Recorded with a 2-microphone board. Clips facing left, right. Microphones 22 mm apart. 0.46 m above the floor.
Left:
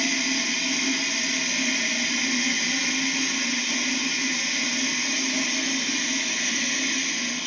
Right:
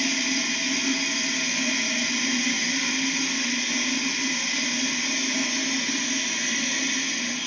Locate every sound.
0.0 s running water: 55° left (ahead or behind), 1.8 m